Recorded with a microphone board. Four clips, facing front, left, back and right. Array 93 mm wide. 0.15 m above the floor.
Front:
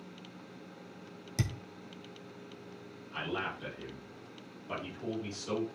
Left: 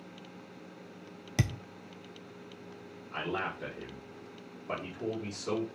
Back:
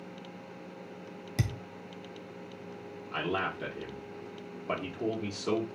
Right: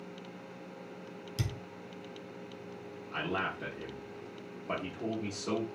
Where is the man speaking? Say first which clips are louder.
Even, back 5 dB; 175° right, 3.5 m.